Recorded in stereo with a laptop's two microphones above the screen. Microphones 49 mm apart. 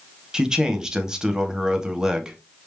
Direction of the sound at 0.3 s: 15° right (ahead or behind).